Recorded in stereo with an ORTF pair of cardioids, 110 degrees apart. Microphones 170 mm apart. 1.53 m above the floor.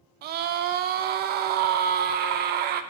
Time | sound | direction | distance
0.2 | a scream | 70° right | 0.9 m